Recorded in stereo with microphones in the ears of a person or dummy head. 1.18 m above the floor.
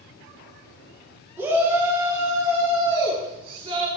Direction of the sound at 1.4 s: 15° right (ahead or behind).